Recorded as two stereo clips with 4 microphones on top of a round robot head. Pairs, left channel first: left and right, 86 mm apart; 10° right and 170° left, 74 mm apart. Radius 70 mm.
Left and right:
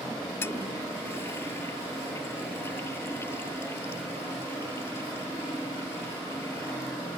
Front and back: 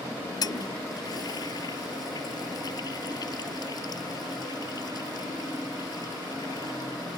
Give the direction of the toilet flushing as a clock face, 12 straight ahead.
11 o'clock.